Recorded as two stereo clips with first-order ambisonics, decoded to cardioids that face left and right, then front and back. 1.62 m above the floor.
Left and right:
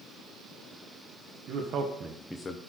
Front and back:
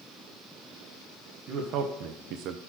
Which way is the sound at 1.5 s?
130° right.